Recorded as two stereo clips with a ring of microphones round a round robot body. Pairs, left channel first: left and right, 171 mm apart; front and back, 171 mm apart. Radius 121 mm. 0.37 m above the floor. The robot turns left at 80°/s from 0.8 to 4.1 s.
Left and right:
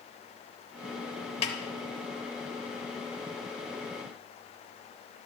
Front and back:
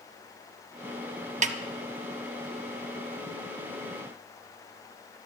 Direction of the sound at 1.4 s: 145° left.